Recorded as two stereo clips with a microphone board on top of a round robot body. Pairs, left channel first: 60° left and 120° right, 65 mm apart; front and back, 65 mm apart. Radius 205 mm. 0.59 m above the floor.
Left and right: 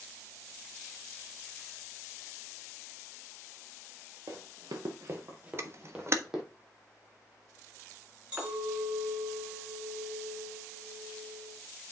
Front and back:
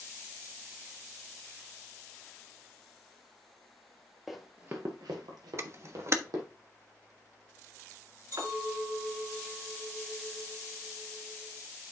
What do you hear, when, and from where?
4.3 s running footsteps: 90° right, 1.0 m; by 6.4 s 155° left, 2 m
5.6 s a camera shutter: 155° right, 1.6 m
8.3 s a clink: 175° left, 5.5 m